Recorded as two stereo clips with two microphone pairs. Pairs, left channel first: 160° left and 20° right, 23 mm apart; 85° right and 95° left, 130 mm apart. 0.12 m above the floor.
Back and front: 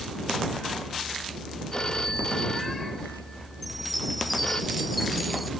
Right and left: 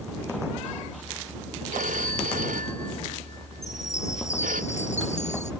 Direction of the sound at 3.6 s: 110° right.